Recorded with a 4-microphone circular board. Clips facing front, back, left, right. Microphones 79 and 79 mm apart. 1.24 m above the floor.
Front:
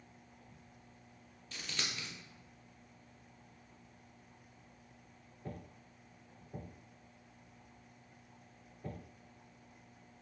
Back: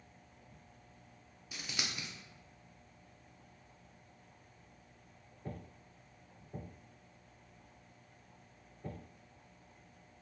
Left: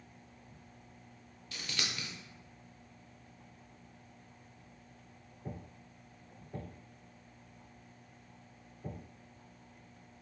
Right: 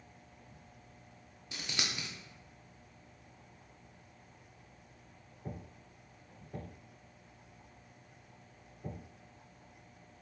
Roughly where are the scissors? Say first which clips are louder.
Even, right 1 dB; behind right.